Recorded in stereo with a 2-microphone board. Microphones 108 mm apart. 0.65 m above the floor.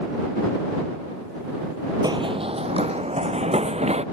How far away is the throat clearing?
I don't hear throat clearing.